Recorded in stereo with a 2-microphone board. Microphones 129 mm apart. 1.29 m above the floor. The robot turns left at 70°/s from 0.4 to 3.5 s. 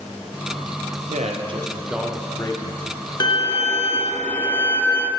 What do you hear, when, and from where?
1.1 s a man speaking: 110° right, 0.8 m; by 2.9 s 125° left, 0.8 m
3.2 s a violin: 30° left (ahead or behind), 0.7 m; by 5.1 s 15° left (ahead or behind), 0.7 m